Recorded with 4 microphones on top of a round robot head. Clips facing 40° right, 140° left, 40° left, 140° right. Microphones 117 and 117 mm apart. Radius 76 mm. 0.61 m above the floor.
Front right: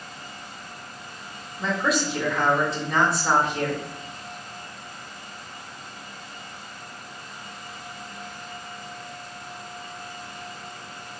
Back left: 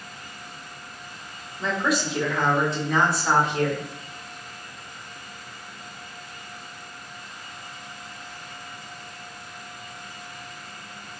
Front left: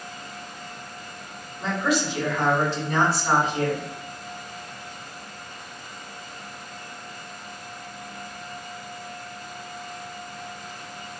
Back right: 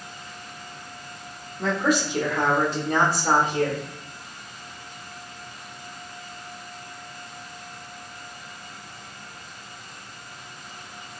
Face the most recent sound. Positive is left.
turn(degrees=-130)